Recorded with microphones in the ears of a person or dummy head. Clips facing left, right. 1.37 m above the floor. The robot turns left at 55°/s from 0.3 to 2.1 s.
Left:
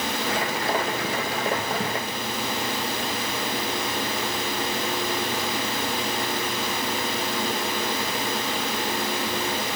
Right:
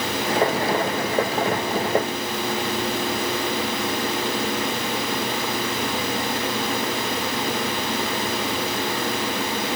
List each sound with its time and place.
Only background noise.